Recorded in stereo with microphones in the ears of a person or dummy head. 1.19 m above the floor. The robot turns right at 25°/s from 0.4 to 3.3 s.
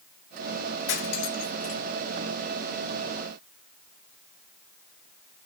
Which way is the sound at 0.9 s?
60° left (ahead or behind).